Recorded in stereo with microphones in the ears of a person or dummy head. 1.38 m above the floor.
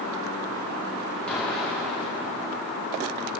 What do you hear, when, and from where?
1.3 s an explosion: 5° left (ahead or behind), 2.5 m